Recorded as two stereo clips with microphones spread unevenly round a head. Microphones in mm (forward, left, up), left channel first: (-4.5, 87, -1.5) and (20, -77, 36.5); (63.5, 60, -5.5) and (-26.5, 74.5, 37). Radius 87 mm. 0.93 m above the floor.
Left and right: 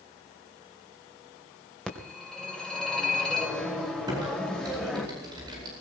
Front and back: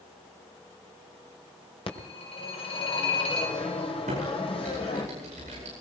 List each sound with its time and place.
1.9 s a phone ringing: 10° left, 2.5 m
4.1 s typing on a keyboard: 150° right, 9 m